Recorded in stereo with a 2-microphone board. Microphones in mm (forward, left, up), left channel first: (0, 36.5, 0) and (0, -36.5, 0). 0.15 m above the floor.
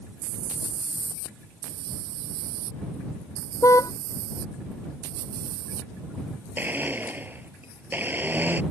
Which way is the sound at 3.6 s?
45° left (ahead or behind).